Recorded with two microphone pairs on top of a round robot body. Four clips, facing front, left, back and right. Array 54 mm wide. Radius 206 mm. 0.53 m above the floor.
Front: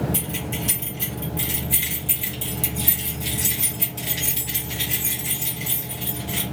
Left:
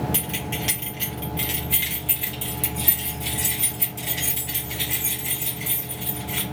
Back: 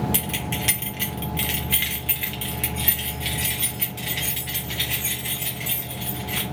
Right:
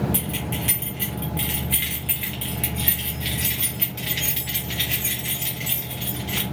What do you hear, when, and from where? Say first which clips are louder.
0.1 s keys jangling: right 1 dB, back 1 dB; 160° left, 1.6 m; by 6.4 s 120° right, 3 m